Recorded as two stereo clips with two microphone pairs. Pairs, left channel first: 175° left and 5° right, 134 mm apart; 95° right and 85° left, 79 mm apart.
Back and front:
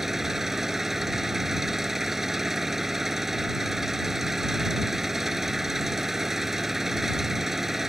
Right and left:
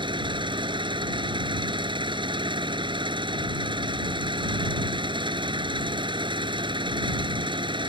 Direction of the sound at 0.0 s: 80° left.